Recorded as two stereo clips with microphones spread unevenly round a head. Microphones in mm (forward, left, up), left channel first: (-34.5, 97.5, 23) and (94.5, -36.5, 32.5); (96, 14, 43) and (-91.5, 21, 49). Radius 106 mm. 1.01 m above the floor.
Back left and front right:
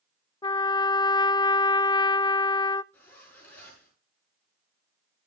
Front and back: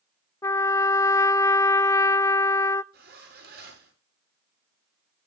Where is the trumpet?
70° left, 0.6 m.